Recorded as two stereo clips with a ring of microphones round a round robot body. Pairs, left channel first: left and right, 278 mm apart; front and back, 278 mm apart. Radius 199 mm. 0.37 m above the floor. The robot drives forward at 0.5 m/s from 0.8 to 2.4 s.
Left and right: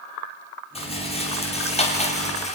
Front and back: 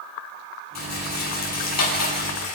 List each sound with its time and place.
0.8 s a rattle: 20° left, 6 m; by 2.5 s 25° left, 5.5 m